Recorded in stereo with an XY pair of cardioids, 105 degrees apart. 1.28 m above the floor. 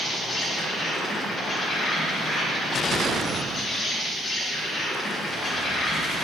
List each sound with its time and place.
0.0 s an insect: 40° left, 0.9 m